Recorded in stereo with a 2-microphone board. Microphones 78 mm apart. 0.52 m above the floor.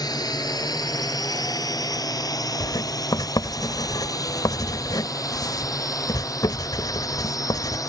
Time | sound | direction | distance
0.0 | a drone | 60° left (ahead or behind) | ?
2.6 | writing | 60° left (ahead or behind) | ?